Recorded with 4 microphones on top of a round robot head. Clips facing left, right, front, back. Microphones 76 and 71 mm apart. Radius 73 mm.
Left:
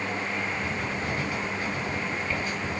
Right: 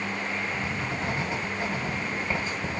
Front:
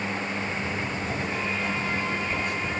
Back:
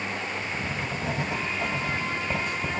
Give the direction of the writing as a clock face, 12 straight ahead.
5 o'clock.